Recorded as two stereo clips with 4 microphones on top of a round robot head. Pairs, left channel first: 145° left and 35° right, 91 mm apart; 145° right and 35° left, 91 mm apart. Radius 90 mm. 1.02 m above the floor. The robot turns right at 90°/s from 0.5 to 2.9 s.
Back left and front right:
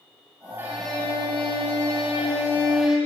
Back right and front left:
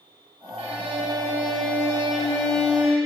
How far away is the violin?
About 5.5 m.